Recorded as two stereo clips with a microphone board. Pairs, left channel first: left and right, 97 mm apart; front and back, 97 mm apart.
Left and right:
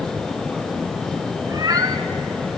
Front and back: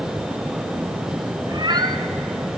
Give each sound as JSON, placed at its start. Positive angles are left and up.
{"t": 1.5, "sound": "a cat meowing", "azimuth_deg": -140, "distance_m": 1.4}